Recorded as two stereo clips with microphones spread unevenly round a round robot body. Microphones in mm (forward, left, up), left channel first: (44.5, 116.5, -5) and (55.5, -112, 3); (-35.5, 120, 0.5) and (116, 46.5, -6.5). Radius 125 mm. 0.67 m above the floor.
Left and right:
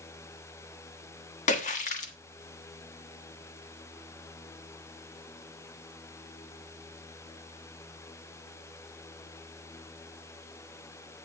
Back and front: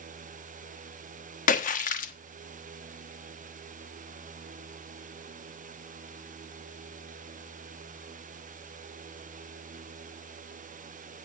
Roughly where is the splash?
Behind left.